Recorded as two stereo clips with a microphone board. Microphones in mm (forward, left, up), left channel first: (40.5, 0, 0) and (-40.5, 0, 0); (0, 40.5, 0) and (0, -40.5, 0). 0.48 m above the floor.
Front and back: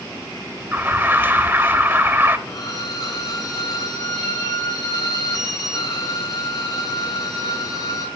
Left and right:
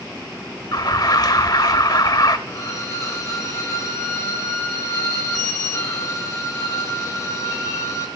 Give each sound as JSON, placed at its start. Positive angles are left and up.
{"t": 0.7, "sound": "an alarm", "azimuth_deg": 120, "distance_m": 1.3}
{"t": 2.5, "sound": "a violin", "azimuth_deg": 45, "distance_m": 4.0}